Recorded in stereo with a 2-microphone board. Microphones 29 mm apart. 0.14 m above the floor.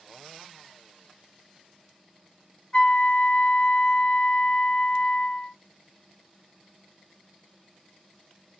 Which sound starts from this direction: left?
A flute, at 2.7 s.